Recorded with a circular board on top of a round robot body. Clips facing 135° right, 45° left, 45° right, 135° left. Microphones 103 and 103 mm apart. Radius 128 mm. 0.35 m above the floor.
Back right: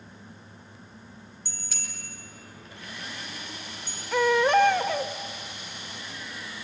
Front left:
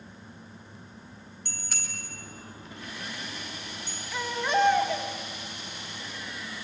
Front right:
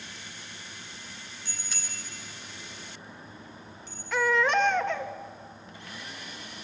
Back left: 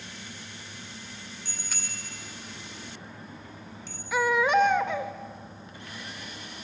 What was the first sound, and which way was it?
A bicycle bell, 85° left.